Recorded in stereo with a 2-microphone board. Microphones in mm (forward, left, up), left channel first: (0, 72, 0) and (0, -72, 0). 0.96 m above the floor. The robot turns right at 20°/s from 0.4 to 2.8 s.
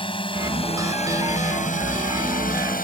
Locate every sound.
0.0 s a drone: 35° left (ahead or behind); by 2.9 s 75° left (ahead or behind)